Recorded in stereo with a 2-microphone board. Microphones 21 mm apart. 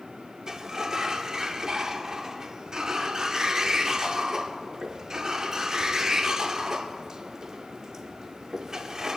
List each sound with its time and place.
0.5 s a sliding door: 30° right (ahead or behind), 0.7 m